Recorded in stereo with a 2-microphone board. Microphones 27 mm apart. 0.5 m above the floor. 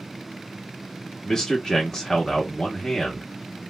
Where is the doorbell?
I don't hear a doorbell.